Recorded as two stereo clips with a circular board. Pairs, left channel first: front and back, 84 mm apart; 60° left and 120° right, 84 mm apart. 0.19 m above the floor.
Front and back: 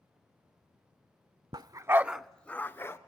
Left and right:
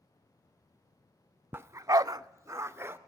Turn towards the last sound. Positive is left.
turn(degrees=-60)